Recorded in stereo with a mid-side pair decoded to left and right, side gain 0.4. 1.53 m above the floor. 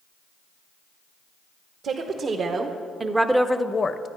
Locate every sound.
1.8 s a woman speaking: 65° right, 1.3 m; by 4.1 s 55° left, 0.8 m